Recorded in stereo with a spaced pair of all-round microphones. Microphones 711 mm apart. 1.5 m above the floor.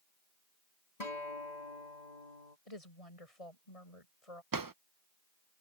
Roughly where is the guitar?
Left.